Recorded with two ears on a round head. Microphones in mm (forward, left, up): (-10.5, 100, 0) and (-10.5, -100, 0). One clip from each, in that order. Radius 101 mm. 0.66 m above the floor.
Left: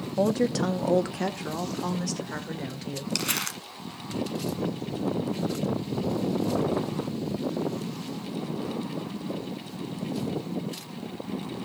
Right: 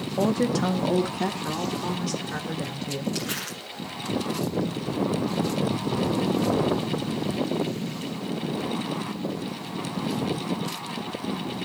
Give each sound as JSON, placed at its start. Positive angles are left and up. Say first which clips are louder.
{"t": 0.2, "sound": "a woman speaking", "louder": "even", "side_deg": 10, "distance_m": 0.6}
{"t": 3.1, "sound": "crumpling", "louder": "left 2 dB", "side_deg": 80, "distance_m": 1.7}